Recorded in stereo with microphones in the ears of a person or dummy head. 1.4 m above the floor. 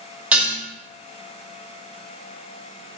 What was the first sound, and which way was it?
Dishes clattering, 5° right (ahead or behind).